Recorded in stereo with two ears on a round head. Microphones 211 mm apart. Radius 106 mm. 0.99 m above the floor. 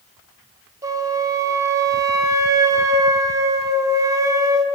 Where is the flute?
15° right (ahead or behind), 0.6 m.